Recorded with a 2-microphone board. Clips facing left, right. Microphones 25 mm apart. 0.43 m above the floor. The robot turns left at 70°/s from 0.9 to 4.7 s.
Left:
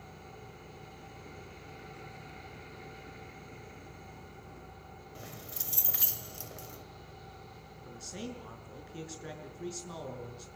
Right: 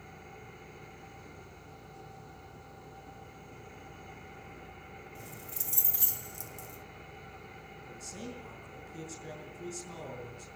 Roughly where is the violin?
No violin in this recording.